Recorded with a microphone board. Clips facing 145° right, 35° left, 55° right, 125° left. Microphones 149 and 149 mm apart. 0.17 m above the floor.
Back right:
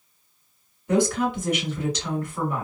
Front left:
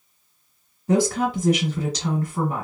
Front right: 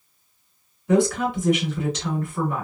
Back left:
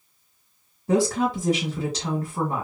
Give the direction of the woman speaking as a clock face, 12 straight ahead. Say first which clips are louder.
Front left 1 dB, front right 1 dB; 9 o'clock.